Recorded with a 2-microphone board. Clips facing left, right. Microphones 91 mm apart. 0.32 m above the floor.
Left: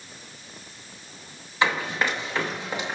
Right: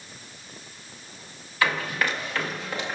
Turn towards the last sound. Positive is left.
turn(degrees=20)  # may be behind; listen again after turning